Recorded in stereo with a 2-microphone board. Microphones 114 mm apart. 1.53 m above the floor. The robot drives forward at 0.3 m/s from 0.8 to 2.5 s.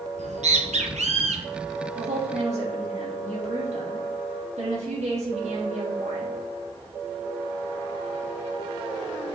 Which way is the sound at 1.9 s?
85° right.